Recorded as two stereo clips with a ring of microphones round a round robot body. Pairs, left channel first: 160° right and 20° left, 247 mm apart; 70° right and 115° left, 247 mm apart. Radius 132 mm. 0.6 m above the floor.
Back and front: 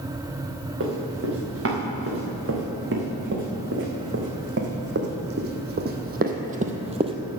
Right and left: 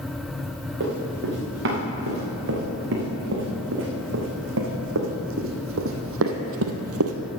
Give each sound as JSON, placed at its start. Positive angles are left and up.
{"t": 0.8, "sound": "running footsteps", "azimuth_deg": 65, "distance_m": 4.0}